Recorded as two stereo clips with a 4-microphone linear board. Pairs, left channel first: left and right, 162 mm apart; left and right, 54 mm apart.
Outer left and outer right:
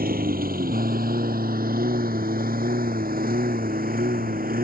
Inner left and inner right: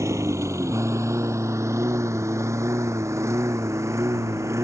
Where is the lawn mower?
70° right (ahead or behind).